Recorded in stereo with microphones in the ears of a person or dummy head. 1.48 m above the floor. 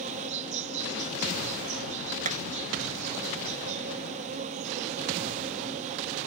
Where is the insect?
40° right (ahead or behind).